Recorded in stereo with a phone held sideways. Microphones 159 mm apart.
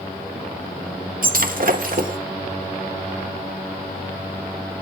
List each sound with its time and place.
1.2 s breaking glass: 60° right (ahead or behind), 1.2 m